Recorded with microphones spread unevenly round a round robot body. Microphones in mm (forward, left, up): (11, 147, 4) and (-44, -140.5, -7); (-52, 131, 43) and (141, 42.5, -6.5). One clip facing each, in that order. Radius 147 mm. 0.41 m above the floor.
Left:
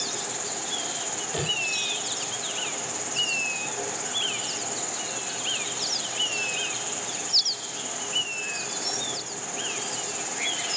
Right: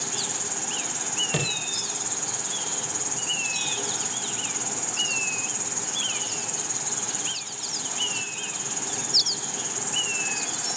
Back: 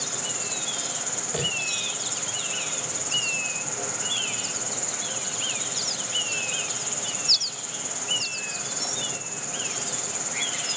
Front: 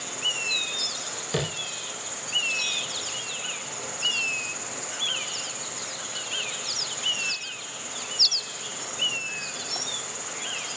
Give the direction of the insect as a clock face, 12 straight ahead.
5 o'clock.